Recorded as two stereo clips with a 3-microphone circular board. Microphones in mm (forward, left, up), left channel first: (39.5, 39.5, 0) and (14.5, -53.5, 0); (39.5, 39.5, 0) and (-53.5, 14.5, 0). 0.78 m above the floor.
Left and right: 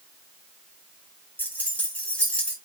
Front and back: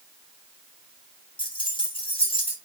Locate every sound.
1.4 s keys jangling: 5° left, 0.7 m; by 2.5 s 5° right, 1.3 m